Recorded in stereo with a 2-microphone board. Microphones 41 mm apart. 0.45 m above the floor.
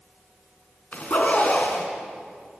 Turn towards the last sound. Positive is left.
turn(degrees=40)  # may be behind; listen again after turning